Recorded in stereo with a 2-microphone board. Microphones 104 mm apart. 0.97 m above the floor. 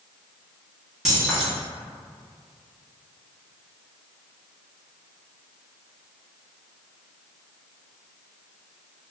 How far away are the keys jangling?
About 1.0 m.